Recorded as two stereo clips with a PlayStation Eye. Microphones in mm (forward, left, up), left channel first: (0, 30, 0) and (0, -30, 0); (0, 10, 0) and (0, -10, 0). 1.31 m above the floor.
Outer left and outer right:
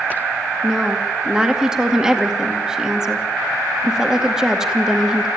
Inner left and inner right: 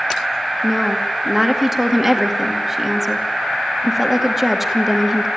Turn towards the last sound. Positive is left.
turn(degrees=-10)  # may be behind; listen again after turning